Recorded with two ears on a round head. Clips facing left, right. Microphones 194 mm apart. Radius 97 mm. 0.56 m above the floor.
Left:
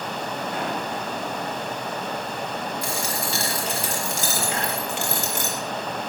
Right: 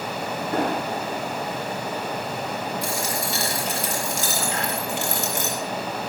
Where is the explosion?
50° right (ahead or behind), 10 m.